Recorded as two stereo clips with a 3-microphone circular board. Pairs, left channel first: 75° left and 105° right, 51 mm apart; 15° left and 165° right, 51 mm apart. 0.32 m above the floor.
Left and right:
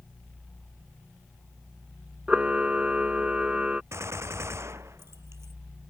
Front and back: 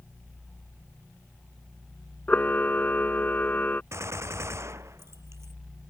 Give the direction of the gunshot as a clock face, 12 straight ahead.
5 o'clock.